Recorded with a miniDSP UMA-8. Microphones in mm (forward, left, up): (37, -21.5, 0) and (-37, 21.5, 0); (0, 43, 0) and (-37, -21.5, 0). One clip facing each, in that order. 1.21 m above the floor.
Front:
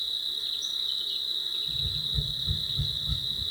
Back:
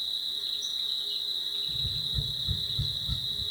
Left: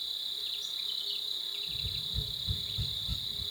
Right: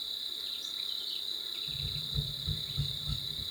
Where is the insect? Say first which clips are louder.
Front 1 dB, left 2 dB; 60° right, 1.6 m.